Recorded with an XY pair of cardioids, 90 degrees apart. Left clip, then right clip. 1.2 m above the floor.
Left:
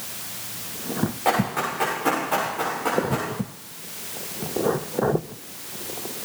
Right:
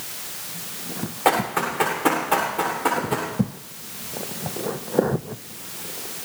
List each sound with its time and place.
1.2 s running footsteps: 50° right, 7.5 m